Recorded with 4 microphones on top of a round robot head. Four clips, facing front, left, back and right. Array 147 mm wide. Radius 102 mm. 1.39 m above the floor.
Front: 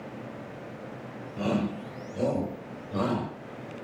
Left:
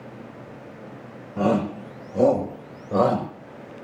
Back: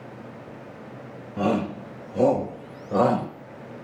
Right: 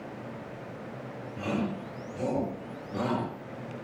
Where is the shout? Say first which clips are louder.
Left 10 dB, back 4 dB; 115° left, 5 m; by 3.3 s 125° left, 6 m.